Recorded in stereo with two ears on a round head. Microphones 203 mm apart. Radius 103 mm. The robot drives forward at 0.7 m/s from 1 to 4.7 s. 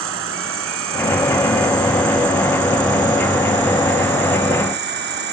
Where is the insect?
65° right (ahead or behind); by 5.3 s 50° right (ahead or behind).